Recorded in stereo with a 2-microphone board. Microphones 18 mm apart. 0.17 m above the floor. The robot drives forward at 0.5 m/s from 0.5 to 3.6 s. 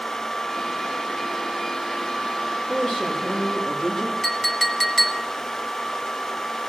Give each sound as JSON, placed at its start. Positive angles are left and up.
{"t": 2.7, "sound": "a woman speaking", "side_deg": 45, "distance_m": 5.5}
{"t": 4.2, "sound": "a clink", "side_deg": 25, "distance_m": 0.8}